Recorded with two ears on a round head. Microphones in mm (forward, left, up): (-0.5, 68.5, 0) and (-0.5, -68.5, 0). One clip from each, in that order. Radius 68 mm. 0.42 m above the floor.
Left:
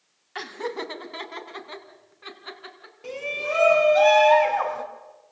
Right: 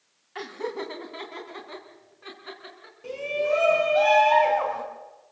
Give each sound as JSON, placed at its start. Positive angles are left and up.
{"t": 0.3, "sound": "laughter", "side_deg": 35, "distance_m": 2.5}
{"t": 3.0, "sound": "a shout", "side_deg": 30, "distance_m": 4.0}